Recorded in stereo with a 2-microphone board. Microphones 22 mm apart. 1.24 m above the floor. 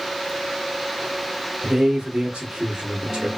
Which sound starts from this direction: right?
A man speaking, at 1.6 s.